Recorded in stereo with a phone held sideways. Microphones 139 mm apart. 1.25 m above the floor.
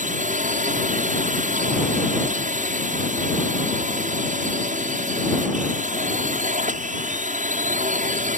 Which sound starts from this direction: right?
A drone, at 0.0 s.